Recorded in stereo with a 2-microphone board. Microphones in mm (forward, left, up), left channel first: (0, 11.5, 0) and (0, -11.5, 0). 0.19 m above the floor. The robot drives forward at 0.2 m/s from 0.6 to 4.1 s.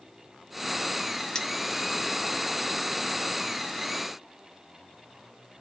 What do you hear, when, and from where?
1.4 s cutlery clinking: 25° left (ahead or behind), 0.6 m; by 1.5 s 30° left (ahead or behind), 0.6 m